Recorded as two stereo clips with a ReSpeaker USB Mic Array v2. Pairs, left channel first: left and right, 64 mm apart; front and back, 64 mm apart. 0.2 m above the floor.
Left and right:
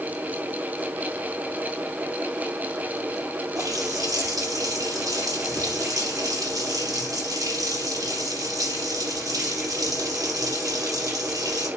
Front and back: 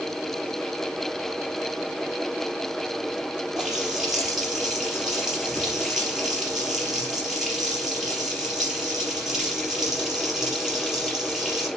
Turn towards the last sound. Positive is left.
turn(degrees=-95)